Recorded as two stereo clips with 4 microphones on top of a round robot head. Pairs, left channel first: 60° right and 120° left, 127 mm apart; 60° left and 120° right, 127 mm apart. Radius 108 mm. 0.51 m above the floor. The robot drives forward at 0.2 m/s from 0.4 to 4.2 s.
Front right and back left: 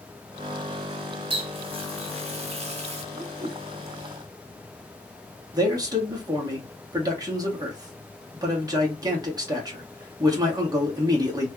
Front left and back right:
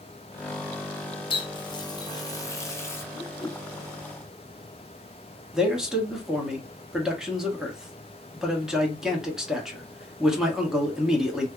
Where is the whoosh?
105° left, 0.9 m; by 3.6 s 110° left, 0.9 m.